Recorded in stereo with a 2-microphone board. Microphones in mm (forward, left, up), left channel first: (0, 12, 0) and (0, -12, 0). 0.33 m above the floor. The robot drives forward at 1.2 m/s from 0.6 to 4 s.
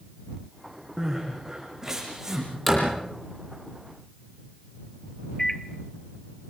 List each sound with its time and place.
1.0 s crying: 15° right (ahead or behind), 8 m; by 2.5 s 20° right (ahead or behind), 6.5 m
2.7 s a door slam: centre (ahead or behind), 7.5 m
5.4 s a microwave: 15° left (ahead or behind), 0.9 m